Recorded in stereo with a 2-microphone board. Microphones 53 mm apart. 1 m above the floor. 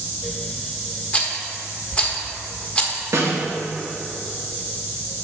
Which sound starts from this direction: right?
A snare drum, at 3.1 s.